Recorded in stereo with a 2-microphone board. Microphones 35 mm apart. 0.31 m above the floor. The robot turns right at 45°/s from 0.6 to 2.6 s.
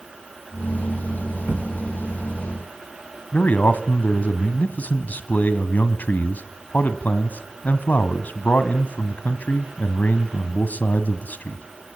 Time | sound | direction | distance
1.5 | a thud | 55° right (ahead or behind) | 6 m
3.3 | a man speaking | 55° left (ahead or behind) | 1.9 m